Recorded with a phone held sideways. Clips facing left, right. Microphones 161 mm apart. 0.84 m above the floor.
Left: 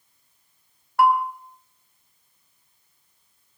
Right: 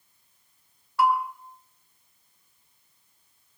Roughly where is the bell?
Left.